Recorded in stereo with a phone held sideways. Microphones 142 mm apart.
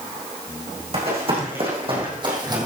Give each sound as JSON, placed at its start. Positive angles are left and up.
{"t": 0.9, "sound": "running footsteps", "side_deg": -45, "distance_m": 5.5}